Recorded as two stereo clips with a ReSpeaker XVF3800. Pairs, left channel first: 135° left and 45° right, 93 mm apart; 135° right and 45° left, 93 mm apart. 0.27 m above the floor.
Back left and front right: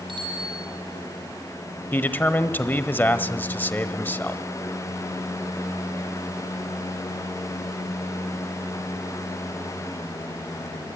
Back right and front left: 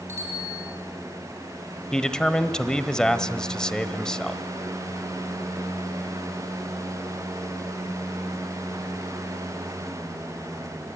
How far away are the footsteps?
No footsteps in this recording.